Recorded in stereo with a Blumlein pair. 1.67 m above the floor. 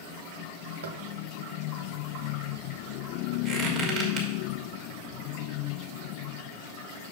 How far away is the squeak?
About 2 m.